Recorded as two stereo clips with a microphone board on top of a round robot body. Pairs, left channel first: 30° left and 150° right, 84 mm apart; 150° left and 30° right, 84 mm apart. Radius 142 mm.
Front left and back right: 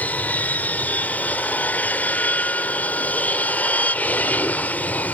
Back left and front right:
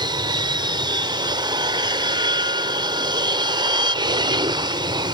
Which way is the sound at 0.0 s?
40° right.